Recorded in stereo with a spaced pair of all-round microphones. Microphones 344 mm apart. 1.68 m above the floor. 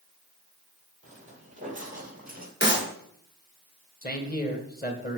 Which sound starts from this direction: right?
Footsteps, at 1.0 s.